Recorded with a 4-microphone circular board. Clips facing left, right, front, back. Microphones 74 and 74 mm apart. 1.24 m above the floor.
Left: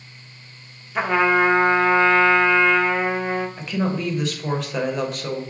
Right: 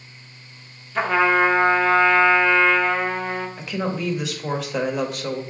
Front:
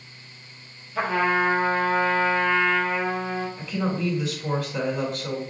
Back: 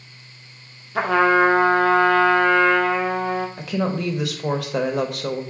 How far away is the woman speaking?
About 0.7 m.